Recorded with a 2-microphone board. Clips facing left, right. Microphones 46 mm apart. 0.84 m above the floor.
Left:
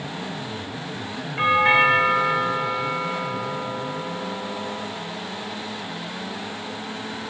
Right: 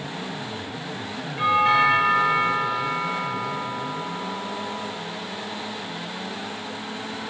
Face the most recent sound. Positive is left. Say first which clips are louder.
# left 1 dB
turn(degrees=35)  # may be behind; listen again after turning